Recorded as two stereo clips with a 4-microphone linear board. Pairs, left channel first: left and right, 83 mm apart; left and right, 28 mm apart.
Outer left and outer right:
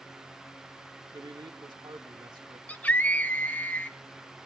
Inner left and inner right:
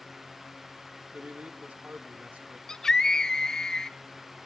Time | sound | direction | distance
1.1 | a man speaking | 65° right (ahead or behind) | 2.5 m
2.7 | a scream | 20° left (ahead or behind) | 1.6 m